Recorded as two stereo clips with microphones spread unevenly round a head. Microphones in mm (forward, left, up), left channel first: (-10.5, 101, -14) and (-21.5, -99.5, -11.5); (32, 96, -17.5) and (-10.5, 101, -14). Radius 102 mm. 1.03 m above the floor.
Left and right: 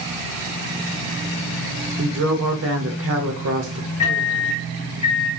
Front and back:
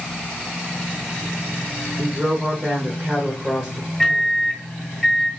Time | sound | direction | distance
2.0 | a woman speaking | 105° right | 0.8 m
4.0 | a microwave | 70° left | 1.8 m